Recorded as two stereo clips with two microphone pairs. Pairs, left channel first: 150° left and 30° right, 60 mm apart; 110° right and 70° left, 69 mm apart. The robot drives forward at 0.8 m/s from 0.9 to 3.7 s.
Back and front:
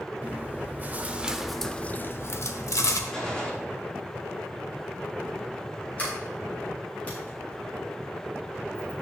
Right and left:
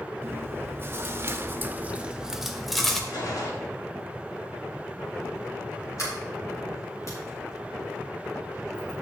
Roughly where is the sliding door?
Behind right.